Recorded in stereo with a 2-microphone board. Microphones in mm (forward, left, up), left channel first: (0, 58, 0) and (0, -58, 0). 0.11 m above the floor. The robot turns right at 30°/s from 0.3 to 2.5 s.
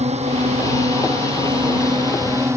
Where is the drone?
90° right; by 2.6 s 25° right.